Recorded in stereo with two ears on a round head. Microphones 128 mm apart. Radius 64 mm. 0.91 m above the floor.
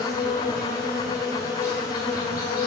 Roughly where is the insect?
Left.